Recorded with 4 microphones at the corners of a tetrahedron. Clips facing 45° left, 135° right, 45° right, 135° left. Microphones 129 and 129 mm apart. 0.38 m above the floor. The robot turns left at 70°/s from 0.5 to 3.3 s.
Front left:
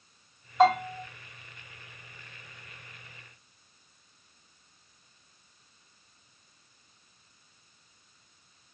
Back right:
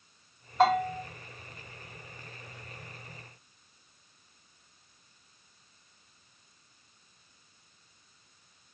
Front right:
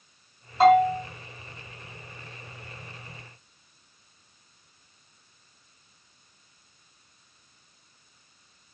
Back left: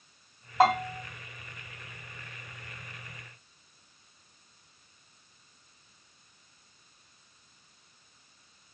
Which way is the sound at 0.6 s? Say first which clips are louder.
Front left 2 dB, front right 7 dB; 135° left.